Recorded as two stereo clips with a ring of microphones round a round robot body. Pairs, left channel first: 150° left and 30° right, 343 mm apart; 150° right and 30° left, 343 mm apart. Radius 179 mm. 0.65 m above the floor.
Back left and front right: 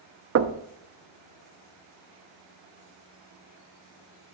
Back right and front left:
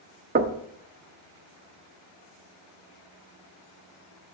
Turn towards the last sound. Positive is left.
turn(degrees=-15)